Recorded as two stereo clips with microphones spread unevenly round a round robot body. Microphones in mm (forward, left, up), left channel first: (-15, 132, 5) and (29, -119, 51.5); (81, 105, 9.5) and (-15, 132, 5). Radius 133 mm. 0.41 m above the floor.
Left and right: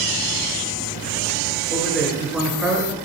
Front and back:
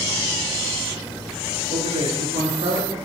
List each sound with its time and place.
1.7 s a man speaking: 175° right, 7 m; by 3.0 s 165° right, 6 m